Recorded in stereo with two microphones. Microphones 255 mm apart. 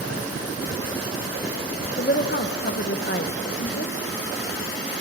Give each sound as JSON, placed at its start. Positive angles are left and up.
{"t": 2.0, "sound": "a woman speaking", "side_deg": 40, "distance_m": 0.9}